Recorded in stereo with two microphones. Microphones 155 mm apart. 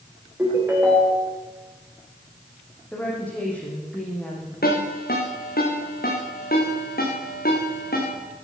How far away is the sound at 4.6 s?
About 6.5 m.